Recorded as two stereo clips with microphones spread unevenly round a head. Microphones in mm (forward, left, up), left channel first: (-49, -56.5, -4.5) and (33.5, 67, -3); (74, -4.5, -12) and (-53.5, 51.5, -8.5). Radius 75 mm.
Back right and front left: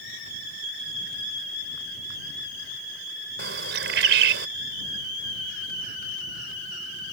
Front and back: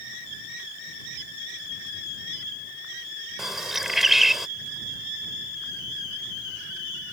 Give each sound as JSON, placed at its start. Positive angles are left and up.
{"t": 3.4, "sound": "a bird", "azimuth_deg": 70}